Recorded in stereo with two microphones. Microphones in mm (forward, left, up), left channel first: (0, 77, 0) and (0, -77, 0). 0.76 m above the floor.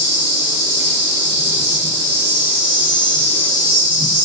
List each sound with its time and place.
0.0 s an insect: 20° right (ahead or behind), 1.7 m